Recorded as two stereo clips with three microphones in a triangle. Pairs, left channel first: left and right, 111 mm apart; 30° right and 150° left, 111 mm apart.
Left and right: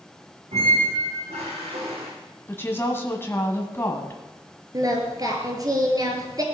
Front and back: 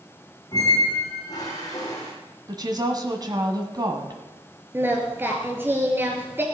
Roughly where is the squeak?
Right.